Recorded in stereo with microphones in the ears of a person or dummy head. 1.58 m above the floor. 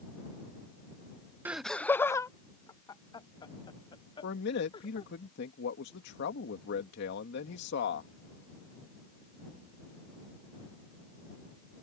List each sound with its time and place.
1.4 s laughter: 10° right (ahead or behind); by 5.1 s 30° left (ahead or behind)
4.2 s a man speaking: 65° left (ahead or behind)